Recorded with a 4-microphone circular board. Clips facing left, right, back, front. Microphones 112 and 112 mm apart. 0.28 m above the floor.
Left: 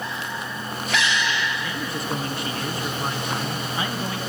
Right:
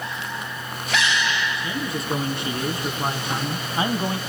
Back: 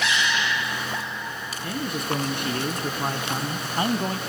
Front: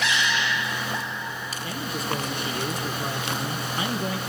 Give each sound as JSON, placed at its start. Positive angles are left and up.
{"t": 1.6, "sound": "a man speaking", "azimuth_deg": -155, "distance_m": 4.0}